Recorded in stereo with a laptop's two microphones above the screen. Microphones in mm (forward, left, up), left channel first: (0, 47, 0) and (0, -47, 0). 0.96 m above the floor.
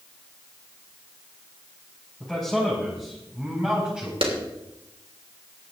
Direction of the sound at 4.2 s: 80° right.